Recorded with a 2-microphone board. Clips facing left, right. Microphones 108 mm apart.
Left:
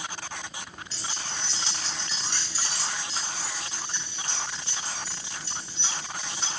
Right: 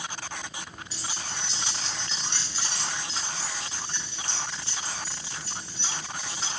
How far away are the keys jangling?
About 4 m.